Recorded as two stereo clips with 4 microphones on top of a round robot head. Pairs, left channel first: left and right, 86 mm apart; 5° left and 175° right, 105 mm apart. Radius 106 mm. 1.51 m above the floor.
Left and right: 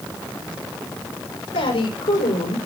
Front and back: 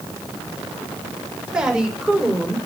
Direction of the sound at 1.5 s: 105° left.